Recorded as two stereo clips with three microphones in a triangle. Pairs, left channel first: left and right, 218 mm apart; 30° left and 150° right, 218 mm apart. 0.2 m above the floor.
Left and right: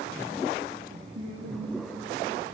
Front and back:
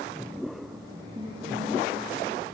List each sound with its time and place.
0.9 s a woman speaking: 80° right, 7 m; by 2.4 s 90° right, 7.5 m